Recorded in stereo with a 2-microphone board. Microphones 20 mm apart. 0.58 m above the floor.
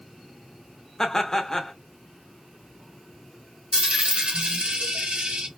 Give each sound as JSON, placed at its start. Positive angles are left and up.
{"t": 1.0, "sound": "laughter", "side_deg": 30, "distance_m": 0.6}
{"t": 3.7, "sound": "a dropped coin", "side_deg": -65, "distance_m": 0.8}